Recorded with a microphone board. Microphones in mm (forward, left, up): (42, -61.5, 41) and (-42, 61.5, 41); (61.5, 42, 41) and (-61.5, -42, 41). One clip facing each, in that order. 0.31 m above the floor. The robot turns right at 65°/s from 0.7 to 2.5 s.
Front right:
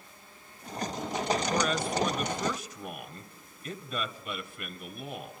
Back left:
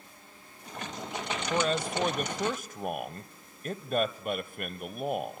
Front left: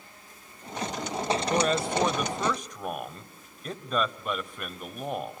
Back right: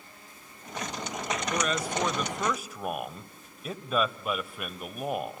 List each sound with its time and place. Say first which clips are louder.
1.5 s a man speaking: even, front left 4 dB; 65° left, 1.3 m; by 5.4 s 130° left, 1.3 m